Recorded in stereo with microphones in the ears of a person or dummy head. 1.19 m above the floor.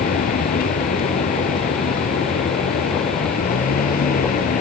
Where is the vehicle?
50° left (ahead or behind).